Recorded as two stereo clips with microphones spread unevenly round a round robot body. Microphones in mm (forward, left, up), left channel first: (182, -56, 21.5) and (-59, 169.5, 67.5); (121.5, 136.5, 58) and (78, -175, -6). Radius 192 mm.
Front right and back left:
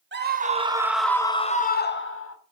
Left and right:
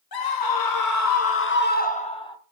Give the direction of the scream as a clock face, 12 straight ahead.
9 o'clock.